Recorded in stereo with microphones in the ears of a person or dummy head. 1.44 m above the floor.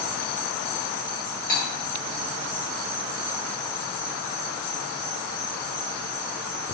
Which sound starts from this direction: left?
Cutlery clinking, at 1.5 s.